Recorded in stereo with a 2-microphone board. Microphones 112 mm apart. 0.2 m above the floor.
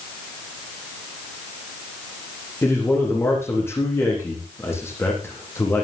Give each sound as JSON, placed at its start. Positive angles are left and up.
{"t": 2.6, "sound": "a man speaking", "side_deg": 20, "distance_m": 8.5}